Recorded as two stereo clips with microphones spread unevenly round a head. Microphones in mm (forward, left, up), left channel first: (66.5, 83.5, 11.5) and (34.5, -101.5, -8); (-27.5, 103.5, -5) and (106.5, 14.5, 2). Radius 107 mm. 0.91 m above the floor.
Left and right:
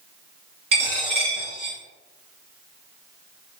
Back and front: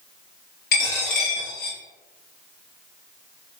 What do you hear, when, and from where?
0.7 s a dropped coin: 165° right, 0.6 m